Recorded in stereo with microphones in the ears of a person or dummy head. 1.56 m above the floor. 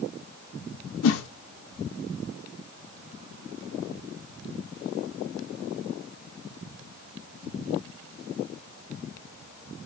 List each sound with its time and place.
1.0 s a whoosh: 80° left, 0.5 m